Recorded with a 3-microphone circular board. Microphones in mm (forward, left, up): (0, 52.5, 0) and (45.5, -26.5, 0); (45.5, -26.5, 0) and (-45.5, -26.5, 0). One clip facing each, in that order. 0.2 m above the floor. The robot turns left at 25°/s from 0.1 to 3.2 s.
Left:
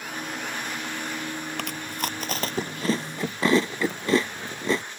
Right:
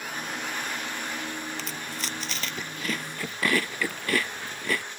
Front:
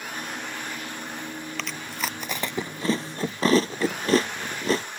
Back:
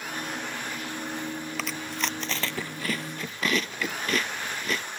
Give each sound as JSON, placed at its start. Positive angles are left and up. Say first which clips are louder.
{"t": 1.6, "sound": "chewing", "louder": "left 4 dB, even", "azimuth_deg": 95}